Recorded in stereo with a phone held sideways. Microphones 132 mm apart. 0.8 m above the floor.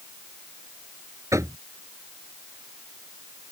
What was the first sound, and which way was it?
Knocking, 25° right (ahead or behind).